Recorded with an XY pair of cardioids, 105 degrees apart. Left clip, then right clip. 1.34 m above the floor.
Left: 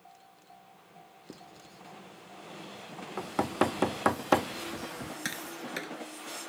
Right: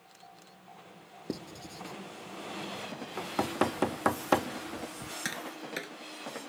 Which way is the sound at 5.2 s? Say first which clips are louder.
Even; straight ahead.